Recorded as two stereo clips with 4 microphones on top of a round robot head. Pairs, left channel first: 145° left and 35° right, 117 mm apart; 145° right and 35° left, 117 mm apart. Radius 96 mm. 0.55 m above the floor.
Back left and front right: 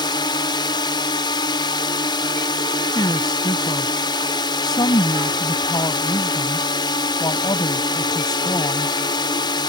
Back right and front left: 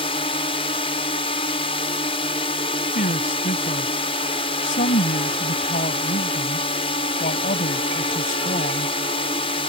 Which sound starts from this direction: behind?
A drone, at 0.0 s.